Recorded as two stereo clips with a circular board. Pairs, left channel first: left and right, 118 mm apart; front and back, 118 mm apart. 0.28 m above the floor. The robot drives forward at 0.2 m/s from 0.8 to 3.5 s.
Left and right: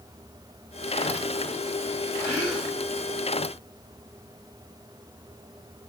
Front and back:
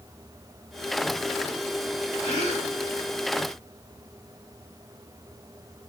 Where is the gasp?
160° right, 2.5 m.